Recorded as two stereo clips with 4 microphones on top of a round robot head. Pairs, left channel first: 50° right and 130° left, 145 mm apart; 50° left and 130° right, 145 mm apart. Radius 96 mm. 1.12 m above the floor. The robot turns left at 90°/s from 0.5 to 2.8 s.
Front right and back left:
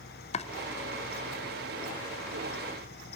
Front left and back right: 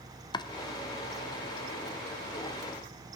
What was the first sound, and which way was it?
Chopping, 10° right.